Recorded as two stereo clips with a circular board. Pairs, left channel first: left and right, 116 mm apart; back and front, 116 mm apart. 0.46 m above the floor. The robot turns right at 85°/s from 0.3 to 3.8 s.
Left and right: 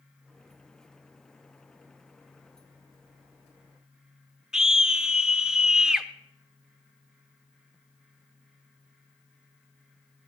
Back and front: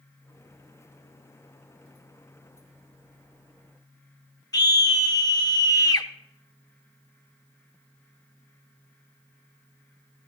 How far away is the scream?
About 0.8 m.